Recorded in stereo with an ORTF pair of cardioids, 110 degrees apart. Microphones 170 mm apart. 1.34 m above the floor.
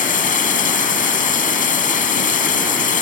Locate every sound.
0.0 s running water: 50° left